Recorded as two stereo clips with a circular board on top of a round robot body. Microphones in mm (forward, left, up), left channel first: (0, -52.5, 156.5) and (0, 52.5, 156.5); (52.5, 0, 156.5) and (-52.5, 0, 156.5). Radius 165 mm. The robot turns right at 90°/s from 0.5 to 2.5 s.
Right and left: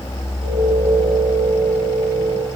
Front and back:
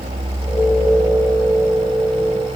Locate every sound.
Only background noise.